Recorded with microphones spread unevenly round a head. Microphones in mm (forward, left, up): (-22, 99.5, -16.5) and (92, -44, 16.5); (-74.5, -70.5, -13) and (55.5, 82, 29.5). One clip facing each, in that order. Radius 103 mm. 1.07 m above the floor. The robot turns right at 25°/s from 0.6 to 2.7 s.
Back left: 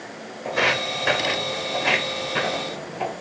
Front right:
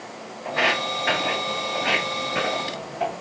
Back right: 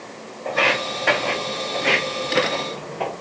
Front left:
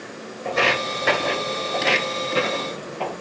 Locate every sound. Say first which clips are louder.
0.5 s footsteps: back left 1 dB, even; 100° left, 3 m; by 3.1 s 165° left, 4.5 m